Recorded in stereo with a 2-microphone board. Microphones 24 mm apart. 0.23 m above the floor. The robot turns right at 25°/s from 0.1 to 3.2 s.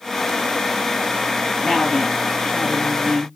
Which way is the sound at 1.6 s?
10° left.